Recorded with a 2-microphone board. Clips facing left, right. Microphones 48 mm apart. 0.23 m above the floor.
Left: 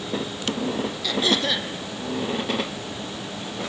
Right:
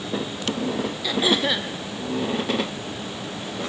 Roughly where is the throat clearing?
Centre.